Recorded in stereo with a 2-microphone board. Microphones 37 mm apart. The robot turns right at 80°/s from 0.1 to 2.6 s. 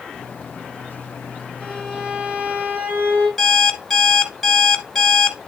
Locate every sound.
1.6 s a violin: 165° left, 5.5 m; by 3.3 s 115° right, 5.5 m
3.4 s an alarm clock: 10° left (ahead or behind), 1.6 m